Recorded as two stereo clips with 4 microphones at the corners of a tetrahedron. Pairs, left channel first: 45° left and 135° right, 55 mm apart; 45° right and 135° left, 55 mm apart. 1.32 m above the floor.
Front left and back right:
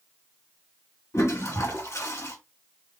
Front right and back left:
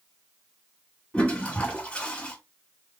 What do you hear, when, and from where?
1.1 s a toilet flushing: 25° left, 2.0 m